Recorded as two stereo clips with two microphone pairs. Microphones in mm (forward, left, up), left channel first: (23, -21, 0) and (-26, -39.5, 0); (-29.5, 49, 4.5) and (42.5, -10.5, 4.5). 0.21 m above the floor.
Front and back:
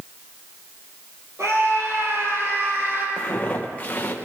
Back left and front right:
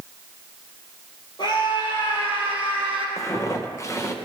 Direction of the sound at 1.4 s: Straight behind.